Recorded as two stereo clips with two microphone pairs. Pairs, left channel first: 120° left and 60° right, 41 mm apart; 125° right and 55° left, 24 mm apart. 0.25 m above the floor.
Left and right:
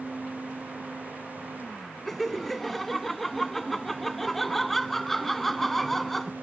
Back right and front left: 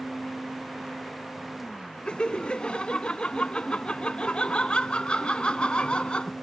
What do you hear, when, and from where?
2.0 s laughter: 155° right